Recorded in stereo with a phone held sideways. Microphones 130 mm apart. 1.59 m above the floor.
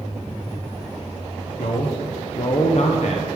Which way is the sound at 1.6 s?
65° left (ahead or behind).